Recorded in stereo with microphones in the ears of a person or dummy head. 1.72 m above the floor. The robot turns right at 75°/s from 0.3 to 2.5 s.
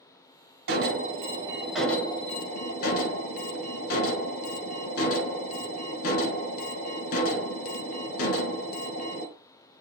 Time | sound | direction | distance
0.7 | an alarm | 80° right | 0.9 m